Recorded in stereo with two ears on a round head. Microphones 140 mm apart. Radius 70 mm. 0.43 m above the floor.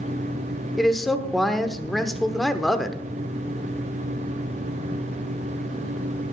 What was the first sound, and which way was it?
A man speaking, centre (ahead or behind).